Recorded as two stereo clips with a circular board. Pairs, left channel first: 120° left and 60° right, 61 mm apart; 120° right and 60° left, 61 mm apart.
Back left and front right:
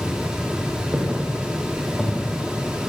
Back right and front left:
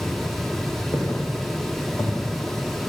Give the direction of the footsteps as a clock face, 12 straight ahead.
5 o'clock.